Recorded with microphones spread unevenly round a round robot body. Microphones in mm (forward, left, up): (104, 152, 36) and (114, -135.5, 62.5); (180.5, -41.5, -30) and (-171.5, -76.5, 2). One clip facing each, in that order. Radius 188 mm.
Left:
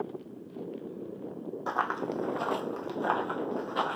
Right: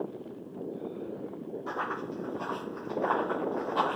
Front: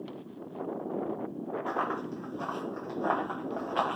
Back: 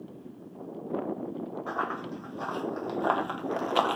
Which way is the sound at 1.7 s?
85° left.